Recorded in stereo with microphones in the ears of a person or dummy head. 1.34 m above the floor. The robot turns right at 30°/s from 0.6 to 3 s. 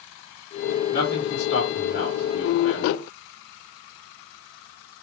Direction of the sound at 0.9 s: 45° left.